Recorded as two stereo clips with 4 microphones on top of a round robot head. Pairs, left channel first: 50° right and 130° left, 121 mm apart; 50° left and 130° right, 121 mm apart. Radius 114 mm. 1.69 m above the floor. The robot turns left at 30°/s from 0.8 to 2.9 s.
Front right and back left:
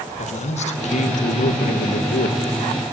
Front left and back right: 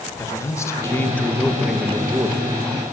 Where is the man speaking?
20° right, 3 m; by 2.4 s 70° right, 3 m.